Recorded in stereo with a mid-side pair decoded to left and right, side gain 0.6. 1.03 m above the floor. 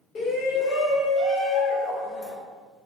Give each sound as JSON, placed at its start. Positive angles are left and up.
{"t": 0.1, "sound": "a shout", "azimuth_deg": 40, "distance_m": 1.5}